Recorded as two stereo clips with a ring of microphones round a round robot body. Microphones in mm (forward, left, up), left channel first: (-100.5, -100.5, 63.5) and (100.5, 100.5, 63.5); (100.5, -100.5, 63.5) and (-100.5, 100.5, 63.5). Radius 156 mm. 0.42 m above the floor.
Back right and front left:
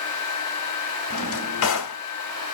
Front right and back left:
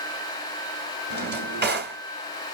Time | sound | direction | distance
1.1 | a drawer | 175° right | 1.8 m